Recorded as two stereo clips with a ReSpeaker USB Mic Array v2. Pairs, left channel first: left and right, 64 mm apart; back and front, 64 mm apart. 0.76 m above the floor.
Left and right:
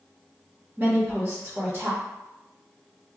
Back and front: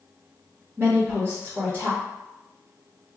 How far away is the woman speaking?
About 1.1 m.